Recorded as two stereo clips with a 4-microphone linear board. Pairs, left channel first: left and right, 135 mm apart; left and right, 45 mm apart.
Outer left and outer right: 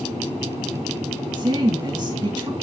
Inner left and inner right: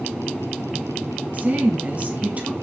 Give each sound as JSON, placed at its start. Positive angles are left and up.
{"t": 1.3, "sound": "a woman speaking", "side_deg": -35, "distance_m": 2.0}